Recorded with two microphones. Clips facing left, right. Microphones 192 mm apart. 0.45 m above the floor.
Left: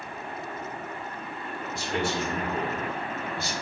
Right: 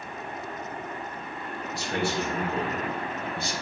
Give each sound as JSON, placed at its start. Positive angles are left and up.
{"t": 1.7, "sound": "a man speaking", "side_deg": -65, "distance_m": 3.0}